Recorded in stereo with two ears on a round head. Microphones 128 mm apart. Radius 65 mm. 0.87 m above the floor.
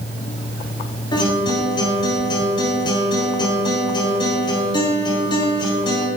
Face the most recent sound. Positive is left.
turn(degrees=35)  # may be behind; listen again after turning